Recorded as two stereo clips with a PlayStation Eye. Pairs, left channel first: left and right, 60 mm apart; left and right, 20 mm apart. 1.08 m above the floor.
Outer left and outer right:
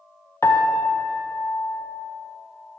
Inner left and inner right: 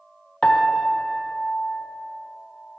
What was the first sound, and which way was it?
A piano, 45° left (ahead or behind).